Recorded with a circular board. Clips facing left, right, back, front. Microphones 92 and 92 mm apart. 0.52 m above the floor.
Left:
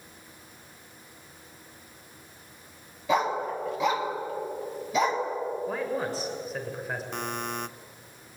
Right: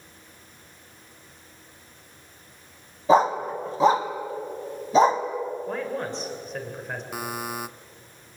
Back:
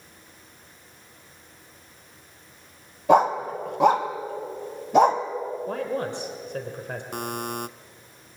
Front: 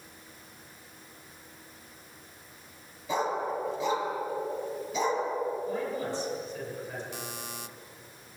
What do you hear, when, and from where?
3.1 s a dog barking: 150° right, 1.7 m
5.7 s a man speaking: 175° left, 2.5 m
7.1 s a buzzer: 170° right, 0.5 m